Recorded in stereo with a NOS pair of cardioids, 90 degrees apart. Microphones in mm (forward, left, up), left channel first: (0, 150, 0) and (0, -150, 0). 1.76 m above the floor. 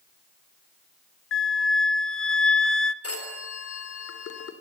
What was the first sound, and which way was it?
A flute, 50° left.